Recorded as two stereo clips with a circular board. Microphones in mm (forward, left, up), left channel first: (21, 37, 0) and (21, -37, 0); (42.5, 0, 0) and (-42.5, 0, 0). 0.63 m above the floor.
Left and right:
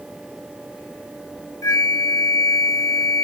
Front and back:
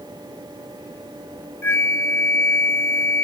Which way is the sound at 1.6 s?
60° left.